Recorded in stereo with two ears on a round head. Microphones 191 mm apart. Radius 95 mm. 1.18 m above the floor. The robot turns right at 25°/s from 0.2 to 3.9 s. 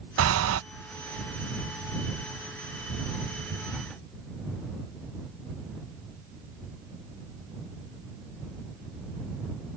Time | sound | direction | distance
0.2 | breathing | 75° right (ahead or behind) | ?